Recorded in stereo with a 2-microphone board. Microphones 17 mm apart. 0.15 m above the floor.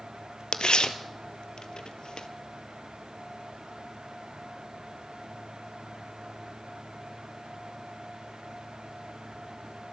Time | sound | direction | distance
0.5 | tearing paper | 70° left (ahead or behind) | 0.9 m